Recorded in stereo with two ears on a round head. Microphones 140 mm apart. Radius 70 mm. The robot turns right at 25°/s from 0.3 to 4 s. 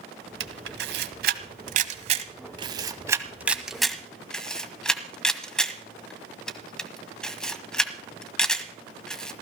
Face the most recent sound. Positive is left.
turn(degrees=5)  # may be behind; listen again after turning